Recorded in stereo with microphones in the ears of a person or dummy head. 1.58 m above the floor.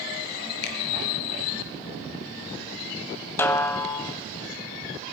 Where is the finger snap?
60° left (ahead or behind), 1.5 m.